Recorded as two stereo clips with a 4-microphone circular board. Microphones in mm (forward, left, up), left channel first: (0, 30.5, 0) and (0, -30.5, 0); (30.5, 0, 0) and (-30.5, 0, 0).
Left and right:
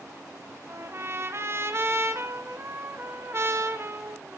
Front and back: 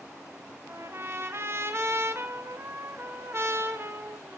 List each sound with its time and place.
0.7 s a trumpet: 135° right, 1.2 m